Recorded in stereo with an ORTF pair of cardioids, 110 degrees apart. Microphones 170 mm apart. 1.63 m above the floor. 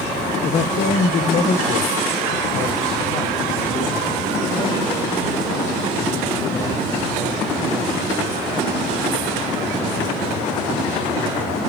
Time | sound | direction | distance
0.4 | a man speaking | 45° left | 0.7 m